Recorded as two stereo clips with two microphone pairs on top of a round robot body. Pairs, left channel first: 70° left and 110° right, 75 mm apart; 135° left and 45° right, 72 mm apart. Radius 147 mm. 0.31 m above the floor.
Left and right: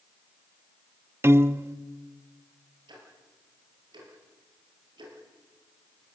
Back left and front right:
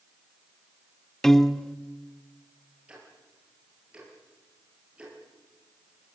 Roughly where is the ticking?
Behind right.